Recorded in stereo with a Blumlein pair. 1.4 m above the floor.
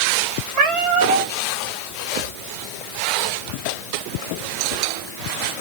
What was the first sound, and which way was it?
A cat meowing, 25° right.